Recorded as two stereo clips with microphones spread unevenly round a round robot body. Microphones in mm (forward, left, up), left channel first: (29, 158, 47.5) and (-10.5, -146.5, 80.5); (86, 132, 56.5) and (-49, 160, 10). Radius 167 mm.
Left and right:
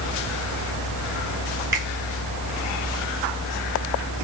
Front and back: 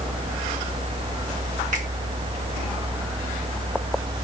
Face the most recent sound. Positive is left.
turn(degrees=-175)